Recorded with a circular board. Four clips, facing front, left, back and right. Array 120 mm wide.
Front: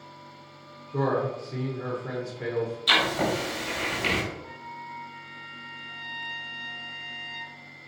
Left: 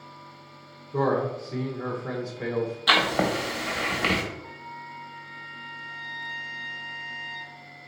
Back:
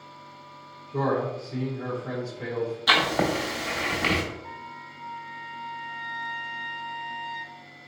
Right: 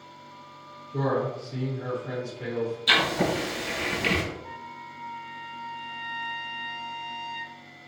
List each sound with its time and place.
0.9 s a man speaking: 85° left, 0.9 m
2.9 s writing: 125° left, 1.1 m
4.4 s a trumpet: 75° left, 1.5 m